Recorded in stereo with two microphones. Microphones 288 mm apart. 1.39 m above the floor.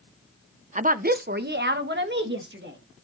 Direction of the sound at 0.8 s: 25° right (ahead or behind).